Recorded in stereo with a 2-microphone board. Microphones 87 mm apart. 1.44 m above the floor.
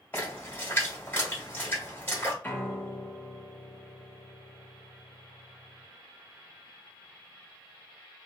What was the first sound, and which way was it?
A splash, 25° left (ahead or behind).